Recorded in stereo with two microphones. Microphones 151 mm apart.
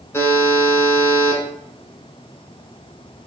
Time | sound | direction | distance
0.1 | a buzzer | 15° left (ahead or behind) | 1.0 m